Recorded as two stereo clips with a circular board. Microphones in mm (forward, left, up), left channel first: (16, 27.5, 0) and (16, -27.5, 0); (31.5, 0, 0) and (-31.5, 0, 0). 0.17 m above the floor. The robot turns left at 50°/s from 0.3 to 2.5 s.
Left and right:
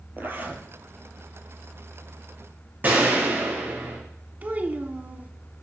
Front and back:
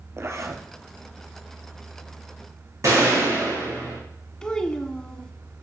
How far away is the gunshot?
About 5.5 m.